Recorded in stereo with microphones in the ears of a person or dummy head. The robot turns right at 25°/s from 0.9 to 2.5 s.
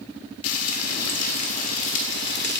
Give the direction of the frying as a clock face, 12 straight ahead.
9 o'clock.